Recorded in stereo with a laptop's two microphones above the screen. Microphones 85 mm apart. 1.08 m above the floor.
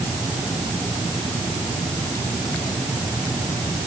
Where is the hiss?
No hiss in this recording.